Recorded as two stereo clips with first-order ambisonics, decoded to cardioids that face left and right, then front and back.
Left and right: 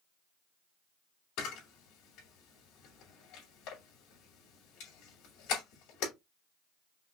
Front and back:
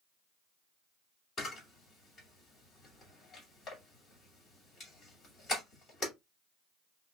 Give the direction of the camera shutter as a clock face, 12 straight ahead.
10 o'clock.